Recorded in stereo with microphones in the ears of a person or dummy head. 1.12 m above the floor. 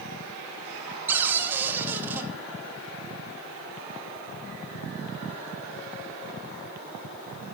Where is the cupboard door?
10° right (ahead or behind), 1.1 m.